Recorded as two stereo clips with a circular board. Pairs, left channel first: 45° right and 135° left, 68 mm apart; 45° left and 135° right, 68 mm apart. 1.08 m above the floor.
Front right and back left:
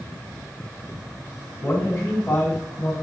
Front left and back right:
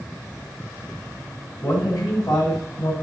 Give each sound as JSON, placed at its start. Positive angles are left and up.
{"t": 1.6, "sound": "a man speaking", "azimuth_deg": 15, "distance_m": 4.5}